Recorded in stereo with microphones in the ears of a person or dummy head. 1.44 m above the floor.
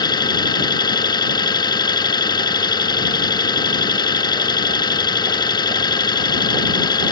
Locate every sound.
0.0 s an engine running: 20° left (ahead or behind)